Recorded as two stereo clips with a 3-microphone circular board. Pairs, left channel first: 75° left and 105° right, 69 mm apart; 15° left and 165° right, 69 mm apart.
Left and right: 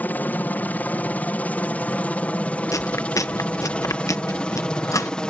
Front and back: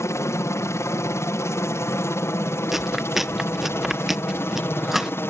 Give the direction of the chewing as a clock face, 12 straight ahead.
8 o'clock.